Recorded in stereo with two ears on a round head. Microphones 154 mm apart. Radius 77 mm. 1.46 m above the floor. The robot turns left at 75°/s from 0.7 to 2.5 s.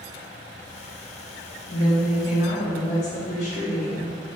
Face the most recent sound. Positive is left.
turn(degrees=35)